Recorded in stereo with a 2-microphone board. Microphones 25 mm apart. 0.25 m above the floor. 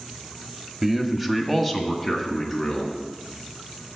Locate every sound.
0.8 s a man speaking: 15° right (ahead or behind), 1.1 m; by 3.0 s 10° left (ahead or behind), 3 m